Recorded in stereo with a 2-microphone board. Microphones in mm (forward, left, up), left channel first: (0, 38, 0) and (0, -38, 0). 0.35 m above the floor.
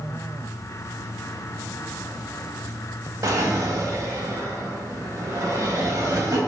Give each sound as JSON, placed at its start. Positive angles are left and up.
{"t": 3.2, "sound": "a drawer", "side_deg": -45, "distance_m": 0.7}